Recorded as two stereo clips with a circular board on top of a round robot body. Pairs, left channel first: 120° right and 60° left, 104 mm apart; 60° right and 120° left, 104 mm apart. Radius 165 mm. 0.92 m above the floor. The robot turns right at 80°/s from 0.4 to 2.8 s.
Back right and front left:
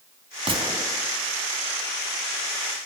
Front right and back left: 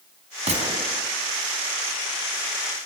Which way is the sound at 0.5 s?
100° left.